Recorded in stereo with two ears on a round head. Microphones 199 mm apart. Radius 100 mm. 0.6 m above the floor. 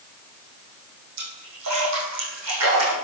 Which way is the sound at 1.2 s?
85° right.